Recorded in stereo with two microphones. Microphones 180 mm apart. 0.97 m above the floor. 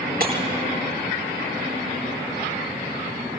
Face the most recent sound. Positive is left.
turn(degrees=-55)  # may be behind; listen again after turning